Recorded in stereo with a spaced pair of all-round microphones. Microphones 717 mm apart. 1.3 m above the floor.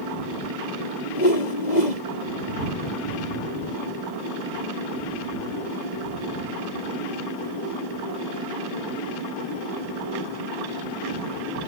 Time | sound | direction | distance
1.1 | a whoosh | 75° left (ahead or behind) | ?